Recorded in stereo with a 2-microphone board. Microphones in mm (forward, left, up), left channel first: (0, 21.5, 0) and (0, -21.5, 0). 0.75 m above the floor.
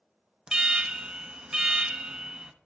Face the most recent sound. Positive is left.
turn(degrees=-20)  # may be behind; listen again after turning